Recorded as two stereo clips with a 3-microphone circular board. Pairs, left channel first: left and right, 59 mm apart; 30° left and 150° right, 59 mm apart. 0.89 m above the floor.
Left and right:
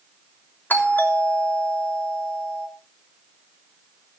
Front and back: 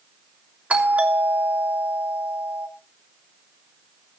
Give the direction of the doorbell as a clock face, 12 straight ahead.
7 o'clock.